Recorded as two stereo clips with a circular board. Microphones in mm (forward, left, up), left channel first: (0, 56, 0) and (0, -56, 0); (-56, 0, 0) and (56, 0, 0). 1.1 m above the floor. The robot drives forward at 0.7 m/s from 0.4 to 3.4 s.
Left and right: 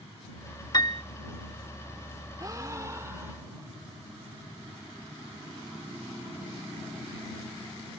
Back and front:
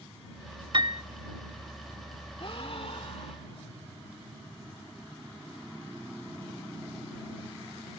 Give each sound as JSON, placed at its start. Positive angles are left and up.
{"t": 0.7, "sound": "a piano", "azimuth_deg": 40}
{"t": 2.4, "sound": "a gasp", "azimuth_deg": -145}